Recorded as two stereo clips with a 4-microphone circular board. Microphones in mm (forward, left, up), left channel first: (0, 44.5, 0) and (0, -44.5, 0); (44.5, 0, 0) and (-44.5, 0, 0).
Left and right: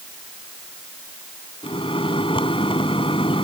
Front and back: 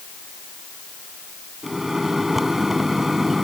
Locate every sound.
1.6 s a microwave: 95° left